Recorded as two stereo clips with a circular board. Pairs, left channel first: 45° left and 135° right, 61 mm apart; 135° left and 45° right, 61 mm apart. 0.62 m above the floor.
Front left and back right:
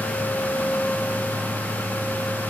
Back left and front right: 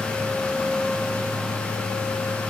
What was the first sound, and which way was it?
Only background noise.